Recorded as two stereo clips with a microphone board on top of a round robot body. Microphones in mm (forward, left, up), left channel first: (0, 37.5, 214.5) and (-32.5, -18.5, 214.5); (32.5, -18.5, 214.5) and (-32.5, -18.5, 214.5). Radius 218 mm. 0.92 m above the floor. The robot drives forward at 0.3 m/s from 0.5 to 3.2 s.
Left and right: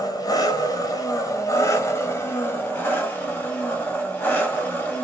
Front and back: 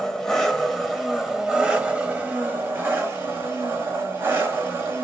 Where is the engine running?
85° left, 0.9 m; by 5.0 s 130° left, 1.1 m.